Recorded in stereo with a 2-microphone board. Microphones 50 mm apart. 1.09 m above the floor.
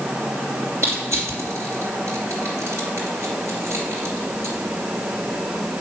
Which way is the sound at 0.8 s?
65° right (ahead or behind).